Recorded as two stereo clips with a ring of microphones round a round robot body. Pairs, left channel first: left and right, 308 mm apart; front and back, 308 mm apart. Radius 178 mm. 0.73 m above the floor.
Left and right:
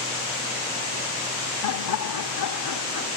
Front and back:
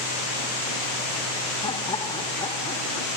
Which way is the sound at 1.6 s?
75° left.